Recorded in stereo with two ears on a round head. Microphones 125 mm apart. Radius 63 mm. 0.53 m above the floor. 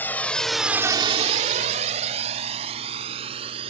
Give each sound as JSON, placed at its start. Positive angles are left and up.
{"t": 0.0, "sound": "a drone", "side_deg": 15}